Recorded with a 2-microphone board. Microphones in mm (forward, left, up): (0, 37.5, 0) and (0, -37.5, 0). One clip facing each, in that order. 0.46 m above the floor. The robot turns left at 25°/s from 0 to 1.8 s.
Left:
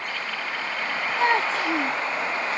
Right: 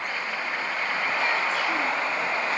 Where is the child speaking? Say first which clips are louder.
Left 7 dB; 50° left (ahead or behind); by 2.0 s 35° left (ahead or behind).